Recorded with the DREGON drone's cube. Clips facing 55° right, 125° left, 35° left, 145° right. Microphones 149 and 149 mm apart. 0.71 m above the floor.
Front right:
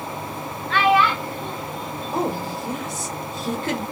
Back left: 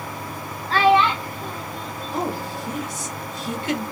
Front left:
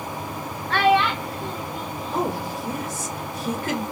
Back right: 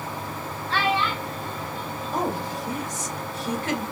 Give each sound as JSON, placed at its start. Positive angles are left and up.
{"t": 0.7, "sound": "a child speaking", "azimuth_deg": 70, "distance_m": 0.6}
{"t": 2.1, "sound": "a woman speaking", "azimuth_deg": -20, "distance_m": 1.5}